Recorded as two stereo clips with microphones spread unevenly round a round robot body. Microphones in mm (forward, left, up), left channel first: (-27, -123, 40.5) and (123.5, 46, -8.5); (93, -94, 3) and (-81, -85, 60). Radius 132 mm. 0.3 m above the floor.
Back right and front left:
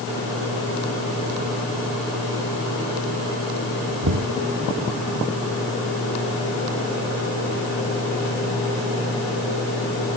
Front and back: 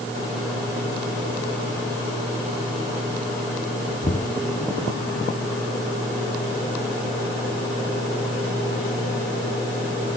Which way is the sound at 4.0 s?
60° left.